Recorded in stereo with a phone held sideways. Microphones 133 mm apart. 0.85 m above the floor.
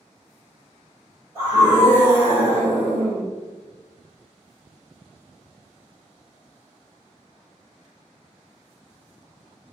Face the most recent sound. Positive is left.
turn(degrees=-25)  # may be behind; listen again after turning